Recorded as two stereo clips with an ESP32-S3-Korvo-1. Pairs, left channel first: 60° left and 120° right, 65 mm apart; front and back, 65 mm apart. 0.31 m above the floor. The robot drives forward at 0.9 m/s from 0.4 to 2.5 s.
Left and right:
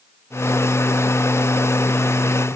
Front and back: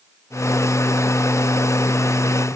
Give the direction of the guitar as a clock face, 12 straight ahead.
No guitar in this recording.